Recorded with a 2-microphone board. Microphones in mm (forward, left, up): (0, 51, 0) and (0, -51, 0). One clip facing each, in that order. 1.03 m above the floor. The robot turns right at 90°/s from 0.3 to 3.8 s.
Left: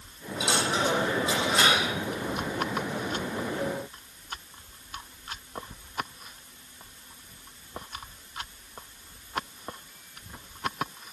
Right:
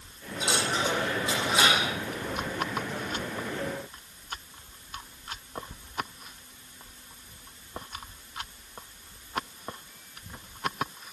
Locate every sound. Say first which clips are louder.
0.4 s a dropped coin: left 2 dB; 75° left (ahead or behind), 8.5 m; by 1.9 s 35° right (ahead or behind), 8.5 m